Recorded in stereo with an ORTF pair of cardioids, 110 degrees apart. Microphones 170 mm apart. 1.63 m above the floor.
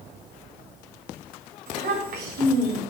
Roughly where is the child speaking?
Ahead right.